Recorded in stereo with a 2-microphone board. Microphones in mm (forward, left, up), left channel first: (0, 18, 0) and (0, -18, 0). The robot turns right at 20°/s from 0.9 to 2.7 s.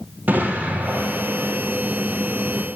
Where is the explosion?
55° right (ahead or behind), 2.5 m; by 1.6 s 70° right (ahead or behind), 2.5 m.